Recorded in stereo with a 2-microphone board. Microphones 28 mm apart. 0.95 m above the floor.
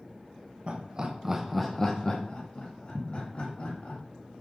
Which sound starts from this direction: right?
Laughter, at 0.7 s.